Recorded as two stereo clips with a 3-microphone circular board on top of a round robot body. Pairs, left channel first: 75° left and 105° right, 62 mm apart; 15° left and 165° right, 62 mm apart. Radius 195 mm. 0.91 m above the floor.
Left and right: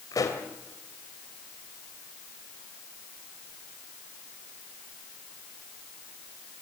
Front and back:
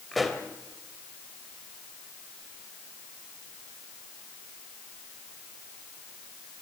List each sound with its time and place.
0.1 s a pop: 105° left, 2.5 m